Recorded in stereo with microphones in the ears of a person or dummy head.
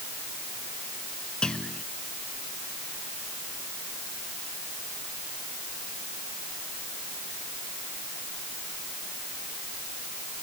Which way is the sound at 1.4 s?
Centre (ahead or behind).